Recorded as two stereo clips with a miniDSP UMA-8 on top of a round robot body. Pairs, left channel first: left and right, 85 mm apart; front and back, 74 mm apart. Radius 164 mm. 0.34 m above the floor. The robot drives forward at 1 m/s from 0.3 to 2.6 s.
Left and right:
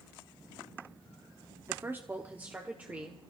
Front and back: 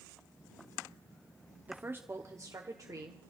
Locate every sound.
1.7 s a woman speaking: 125° right, 1.3 m; by 3.2 s 160° right, 1.8 m